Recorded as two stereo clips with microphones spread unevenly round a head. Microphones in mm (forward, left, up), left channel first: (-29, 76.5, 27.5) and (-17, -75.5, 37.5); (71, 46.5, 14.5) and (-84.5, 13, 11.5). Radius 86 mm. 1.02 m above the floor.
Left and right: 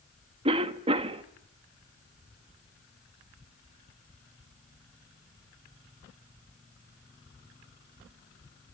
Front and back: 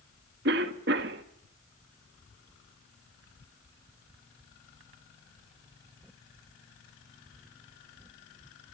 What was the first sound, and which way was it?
A cough, 140° right.